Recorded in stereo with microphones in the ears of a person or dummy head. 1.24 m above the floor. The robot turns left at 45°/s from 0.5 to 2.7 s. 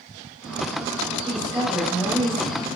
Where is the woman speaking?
145° right, 6 m; by 2.7 s 150° left, 6 m.